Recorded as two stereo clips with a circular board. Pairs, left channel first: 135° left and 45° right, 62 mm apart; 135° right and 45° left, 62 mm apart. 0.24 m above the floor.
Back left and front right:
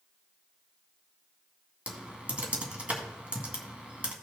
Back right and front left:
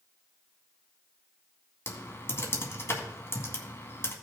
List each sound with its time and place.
1.9 s typing on a keyboard: 105° right, 2 m